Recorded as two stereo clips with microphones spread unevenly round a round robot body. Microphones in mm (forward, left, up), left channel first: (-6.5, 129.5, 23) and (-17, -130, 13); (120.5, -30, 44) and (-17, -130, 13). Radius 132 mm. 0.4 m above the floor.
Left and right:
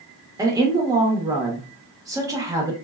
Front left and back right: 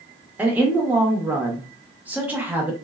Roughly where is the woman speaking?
Behind right.